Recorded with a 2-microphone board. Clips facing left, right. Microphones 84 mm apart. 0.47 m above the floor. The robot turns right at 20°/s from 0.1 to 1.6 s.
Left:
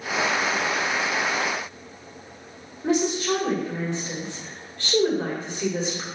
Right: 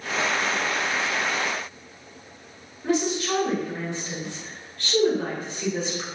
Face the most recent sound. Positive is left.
turn(degrees=25)  # may be behind; listen again after turning